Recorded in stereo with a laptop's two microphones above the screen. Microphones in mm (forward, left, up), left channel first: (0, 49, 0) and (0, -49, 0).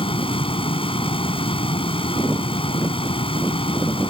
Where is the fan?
70° left (ahead or behind).